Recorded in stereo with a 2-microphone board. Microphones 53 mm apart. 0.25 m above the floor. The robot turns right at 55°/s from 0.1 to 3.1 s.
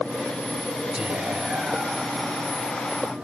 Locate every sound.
0.9 s whispering: 25° right (ahead or behind), 1.0 m; by 3.1 s 20° left (ahead or behind), 1.0 m